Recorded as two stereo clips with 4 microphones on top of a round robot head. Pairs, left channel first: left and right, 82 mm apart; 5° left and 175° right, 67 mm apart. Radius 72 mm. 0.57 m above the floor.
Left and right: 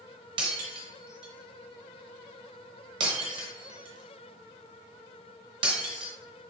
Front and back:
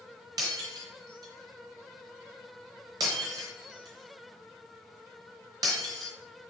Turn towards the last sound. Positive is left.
turn(degrees=-125)